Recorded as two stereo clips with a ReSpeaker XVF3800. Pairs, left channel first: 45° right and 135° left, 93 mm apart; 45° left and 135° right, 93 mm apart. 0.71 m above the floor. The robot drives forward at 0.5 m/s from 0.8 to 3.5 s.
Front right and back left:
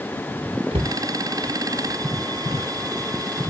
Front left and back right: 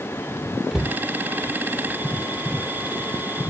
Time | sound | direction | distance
0.7 | a cupboard door | 145° left | ?